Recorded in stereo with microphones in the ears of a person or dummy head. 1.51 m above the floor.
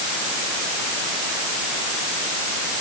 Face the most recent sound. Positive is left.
No sound to turn to.